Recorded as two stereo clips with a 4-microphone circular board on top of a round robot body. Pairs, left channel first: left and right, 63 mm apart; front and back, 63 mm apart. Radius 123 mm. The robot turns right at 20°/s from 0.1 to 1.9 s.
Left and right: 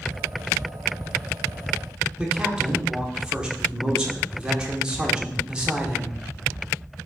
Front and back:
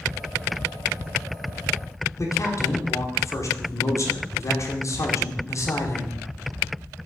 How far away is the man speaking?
About 1.2 m.